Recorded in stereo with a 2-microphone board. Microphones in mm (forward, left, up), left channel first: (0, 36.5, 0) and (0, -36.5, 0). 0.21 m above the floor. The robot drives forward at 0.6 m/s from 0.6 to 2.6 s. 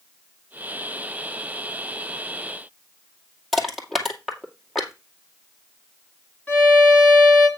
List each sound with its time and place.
3.5 s crushing: 5° left (ahead or behind), 2.5 m
6.5 s a violin: 20° left (ahead or behind), 2.5 m